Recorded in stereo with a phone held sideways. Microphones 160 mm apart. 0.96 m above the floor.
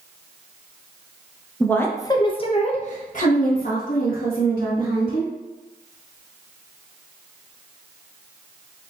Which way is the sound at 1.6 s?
5° left (ahead or behind).